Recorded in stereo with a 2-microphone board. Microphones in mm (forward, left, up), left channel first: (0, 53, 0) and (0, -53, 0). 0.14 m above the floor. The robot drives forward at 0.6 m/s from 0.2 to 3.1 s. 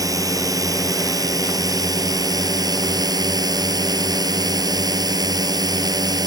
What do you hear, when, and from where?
0.0 s a drone: 35° right (ahead or behind); by 6.3 s 40° right (ahead or behind)